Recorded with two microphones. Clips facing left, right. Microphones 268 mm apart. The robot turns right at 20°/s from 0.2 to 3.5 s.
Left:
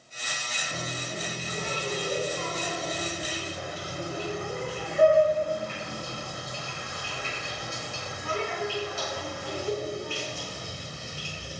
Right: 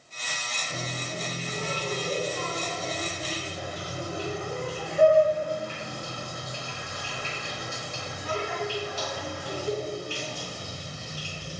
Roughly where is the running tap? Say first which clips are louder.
Right 1 dB; right.